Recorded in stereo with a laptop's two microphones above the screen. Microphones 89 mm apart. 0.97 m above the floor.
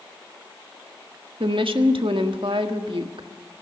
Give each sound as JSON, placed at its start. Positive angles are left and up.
{"t": 1.4, "sound": "a woman speaking", "side_deg": -80, "distance_m": 1.5}